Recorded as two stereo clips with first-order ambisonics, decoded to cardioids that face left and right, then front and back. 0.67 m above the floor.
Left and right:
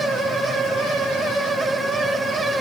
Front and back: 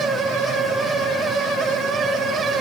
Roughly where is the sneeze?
I don't hear a sneeze.